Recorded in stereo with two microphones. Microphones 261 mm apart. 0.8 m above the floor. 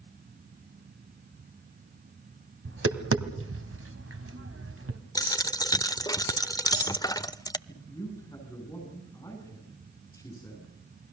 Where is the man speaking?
10° left (ahead or behind), 9 m.